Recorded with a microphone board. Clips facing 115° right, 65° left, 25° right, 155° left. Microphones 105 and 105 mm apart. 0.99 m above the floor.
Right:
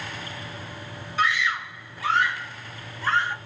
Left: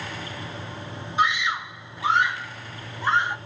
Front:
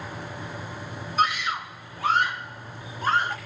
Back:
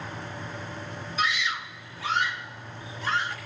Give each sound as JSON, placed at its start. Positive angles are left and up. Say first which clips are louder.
{"t": 1.2, "sound": "a scream", "louder": "left 1 dB, front 5 dB", "azimuth_deg": 5, "distance_m": 1.3}